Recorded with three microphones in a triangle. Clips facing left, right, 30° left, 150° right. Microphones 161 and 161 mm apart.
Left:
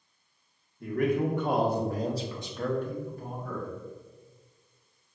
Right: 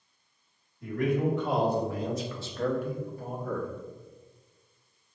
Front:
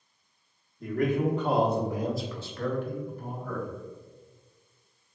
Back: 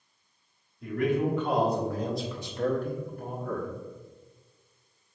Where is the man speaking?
65° left, 1.2 m; by 3.7 s 145° right, 1.1 m.